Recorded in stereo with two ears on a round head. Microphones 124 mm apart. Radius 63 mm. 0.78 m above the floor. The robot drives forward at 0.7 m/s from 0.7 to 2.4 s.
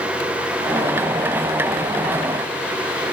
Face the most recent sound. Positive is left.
No sound to turn to.